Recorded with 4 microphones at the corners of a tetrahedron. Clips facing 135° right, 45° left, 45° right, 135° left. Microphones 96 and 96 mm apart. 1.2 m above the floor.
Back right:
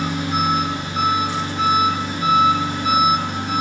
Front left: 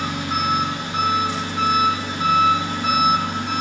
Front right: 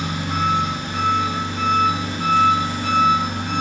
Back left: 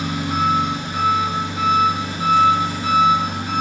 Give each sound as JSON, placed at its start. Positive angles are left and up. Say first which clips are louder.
{"t": 0.0, "sound": "an engine running", "louder": "back right 2 dB, back left 2 dB", "azimuth_deg": 55, "distance_m": 3.5}